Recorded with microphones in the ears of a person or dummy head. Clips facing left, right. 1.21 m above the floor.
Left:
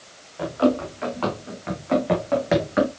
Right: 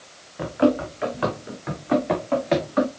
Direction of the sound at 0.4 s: 25° right (ahead or behind).